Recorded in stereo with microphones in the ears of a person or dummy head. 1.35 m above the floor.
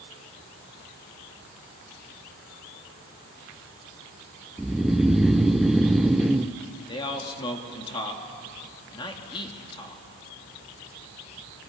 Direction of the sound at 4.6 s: Centre (ahead or behind).